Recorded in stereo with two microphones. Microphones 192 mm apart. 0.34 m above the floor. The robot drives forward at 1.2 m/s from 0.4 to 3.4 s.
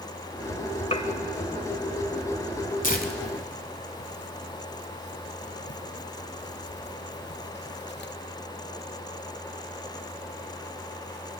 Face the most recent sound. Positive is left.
turn(degrees=60)  # may be behind; listen again after turning